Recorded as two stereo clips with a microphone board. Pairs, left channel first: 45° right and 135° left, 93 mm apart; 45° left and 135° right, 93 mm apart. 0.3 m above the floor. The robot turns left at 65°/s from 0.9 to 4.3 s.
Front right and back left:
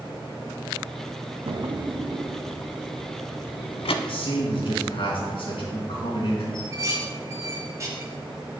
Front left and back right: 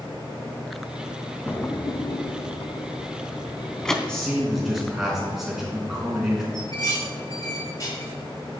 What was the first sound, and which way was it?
A drawer, 120° left.